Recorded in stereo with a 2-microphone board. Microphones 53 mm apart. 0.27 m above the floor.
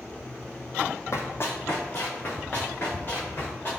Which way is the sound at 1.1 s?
55° left (ahead or behind).